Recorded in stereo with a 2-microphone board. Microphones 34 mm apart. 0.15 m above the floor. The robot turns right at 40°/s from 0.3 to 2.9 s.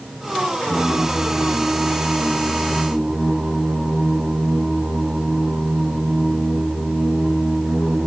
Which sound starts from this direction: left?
Singing, at 0.6 s.